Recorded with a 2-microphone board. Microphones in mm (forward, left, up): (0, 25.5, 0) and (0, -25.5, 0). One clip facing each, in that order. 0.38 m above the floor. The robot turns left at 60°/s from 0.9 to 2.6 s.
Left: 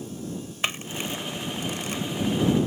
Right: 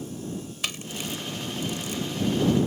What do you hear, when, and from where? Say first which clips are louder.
0.6 s a camera shutter: left 5 dB; 35° left (ahead or behind); by 2.0 s 50° left (ahead or behind)